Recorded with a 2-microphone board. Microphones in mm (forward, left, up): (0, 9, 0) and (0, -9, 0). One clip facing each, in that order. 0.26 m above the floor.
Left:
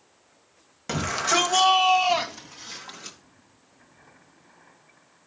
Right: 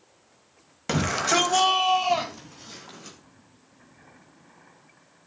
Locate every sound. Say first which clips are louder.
0.9 s a shout: right 1 dB; 15° right (ahead or behind), 1.2 m; by 3.2 s 35° left (ahead or behind), 2.5 m